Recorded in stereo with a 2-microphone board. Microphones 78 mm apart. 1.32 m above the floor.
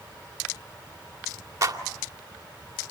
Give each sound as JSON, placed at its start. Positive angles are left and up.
{"t": 1.6, "sound": "a clap", "side_deg": -40, "distance_m": 2.5}